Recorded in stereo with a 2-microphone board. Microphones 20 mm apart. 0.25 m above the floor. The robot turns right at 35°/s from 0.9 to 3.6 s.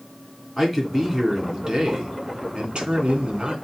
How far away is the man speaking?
About 3 m.